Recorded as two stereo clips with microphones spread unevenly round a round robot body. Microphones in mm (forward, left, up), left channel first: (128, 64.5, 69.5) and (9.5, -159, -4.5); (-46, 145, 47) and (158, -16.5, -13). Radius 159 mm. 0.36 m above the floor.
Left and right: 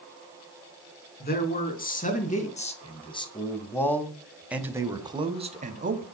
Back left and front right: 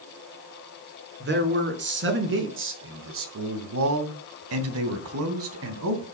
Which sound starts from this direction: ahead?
A man speaking, at 1.2 s.